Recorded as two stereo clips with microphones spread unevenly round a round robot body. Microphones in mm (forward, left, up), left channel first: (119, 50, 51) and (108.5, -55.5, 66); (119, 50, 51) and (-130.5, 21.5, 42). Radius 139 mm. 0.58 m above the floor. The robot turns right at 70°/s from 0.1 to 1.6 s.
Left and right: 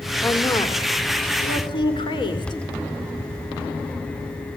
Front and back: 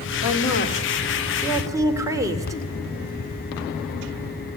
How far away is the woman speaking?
About 2.5 m.